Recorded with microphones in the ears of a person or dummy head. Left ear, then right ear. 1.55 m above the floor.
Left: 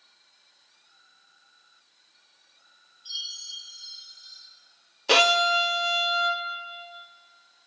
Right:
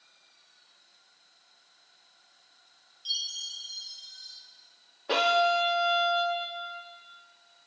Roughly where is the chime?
Right.